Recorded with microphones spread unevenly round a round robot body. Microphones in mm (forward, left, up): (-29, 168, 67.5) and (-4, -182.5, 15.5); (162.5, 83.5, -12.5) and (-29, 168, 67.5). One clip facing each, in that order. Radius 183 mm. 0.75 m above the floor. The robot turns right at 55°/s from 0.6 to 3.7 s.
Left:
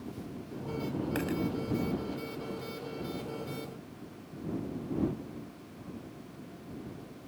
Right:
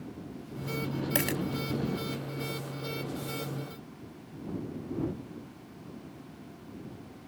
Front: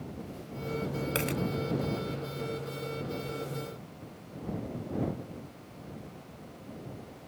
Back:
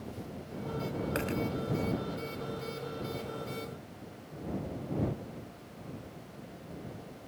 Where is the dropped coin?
95° right; by 1.4 s 80° right.